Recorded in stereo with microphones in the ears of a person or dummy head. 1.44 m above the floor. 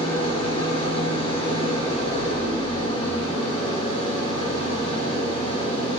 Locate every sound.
0.0 s an engine running: 30° left (ahead or behind), 1.0 m